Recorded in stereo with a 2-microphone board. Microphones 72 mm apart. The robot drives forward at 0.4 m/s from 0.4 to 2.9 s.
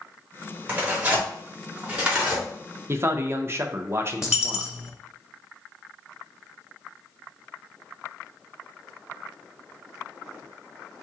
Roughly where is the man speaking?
Right.